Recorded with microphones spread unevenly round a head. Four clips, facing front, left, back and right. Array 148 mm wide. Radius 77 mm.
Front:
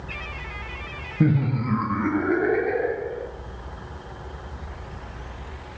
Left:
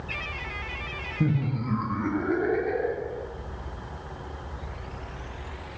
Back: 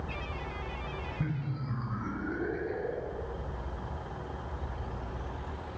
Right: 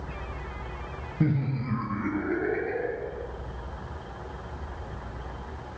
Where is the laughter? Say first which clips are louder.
Even, front 18 dB; 5° right, 0.7 m; by 3.3 s 15° left, 3 m.